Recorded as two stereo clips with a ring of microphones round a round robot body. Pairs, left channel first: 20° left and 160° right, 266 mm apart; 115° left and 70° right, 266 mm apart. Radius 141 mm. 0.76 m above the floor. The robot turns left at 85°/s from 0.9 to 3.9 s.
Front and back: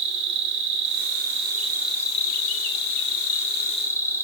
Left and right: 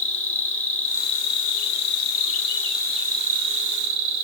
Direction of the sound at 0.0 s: 165° right.